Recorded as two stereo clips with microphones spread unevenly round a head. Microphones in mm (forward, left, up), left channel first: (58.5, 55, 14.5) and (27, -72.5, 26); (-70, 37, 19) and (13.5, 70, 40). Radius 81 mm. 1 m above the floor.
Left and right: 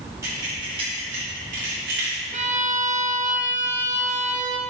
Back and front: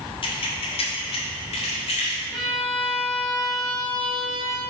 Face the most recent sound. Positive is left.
turn(degrees=-65)